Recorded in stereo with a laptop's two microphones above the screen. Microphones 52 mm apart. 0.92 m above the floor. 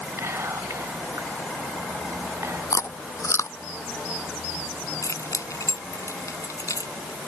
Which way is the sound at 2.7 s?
75° left (ahead or behind).